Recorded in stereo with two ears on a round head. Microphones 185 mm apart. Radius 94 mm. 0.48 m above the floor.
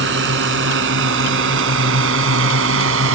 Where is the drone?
65° right (ahead or behind); by 3.2 s 70° right (ahead or behind).